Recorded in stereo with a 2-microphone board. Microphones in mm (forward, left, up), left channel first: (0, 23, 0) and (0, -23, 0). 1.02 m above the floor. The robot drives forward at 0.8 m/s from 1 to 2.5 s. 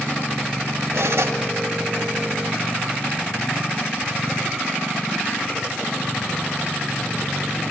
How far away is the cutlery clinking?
About 3.5 m.